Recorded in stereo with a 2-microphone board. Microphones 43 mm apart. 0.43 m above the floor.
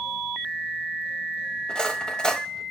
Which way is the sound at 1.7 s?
20° left (ahead or behind).